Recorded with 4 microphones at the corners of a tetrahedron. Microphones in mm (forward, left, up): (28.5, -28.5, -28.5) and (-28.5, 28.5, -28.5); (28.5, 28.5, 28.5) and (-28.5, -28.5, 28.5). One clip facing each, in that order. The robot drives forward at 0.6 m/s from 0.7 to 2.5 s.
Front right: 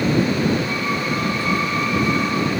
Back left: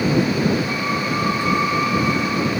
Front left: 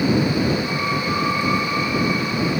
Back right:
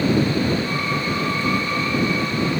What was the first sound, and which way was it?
Only background noise.